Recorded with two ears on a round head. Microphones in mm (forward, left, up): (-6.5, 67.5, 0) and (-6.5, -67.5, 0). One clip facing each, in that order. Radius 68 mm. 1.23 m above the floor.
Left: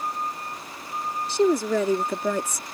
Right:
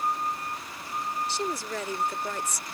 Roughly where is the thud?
I don't hear a thud.